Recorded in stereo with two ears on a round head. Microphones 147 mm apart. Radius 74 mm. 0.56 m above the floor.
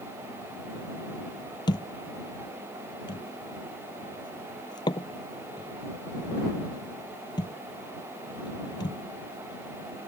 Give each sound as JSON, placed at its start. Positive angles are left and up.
{"t": 1.7, "sound": "a thud", "side_deg": 25}